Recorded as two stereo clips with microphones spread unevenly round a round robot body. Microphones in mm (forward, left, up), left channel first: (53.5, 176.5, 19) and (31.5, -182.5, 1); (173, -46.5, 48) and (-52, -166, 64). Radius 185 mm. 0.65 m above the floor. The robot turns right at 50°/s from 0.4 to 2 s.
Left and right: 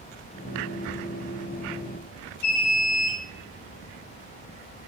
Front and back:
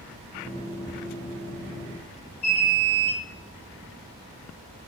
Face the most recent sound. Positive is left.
turn(degrees=95)